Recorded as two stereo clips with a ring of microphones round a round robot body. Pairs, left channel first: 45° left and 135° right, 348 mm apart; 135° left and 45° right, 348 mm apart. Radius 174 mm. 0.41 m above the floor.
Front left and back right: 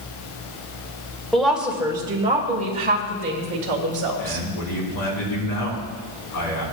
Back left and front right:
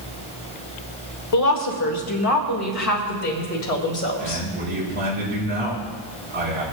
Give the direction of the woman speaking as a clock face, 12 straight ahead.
8 o'clock.